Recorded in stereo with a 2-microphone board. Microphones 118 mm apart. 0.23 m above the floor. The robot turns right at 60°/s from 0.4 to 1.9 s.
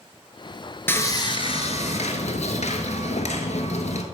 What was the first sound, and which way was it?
Sawing, 20° left.